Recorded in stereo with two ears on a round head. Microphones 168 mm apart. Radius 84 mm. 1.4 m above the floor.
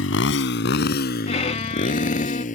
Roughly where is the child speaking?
I don't hear a child speaking.